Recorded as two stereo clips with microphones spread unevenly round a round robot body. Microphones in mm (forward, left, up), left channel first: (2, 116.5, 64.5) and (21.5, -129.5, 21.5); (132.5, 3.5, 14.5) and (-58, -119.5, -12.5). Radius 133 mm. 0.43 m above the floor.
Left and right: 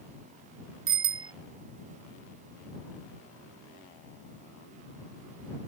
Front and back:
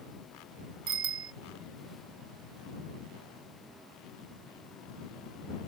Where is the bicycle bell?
120° right.